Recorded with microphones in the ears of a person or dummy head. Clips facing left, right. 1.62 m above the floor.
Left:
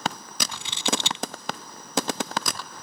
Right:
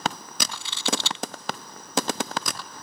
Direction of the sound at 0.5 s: 20° left (ahead or behind).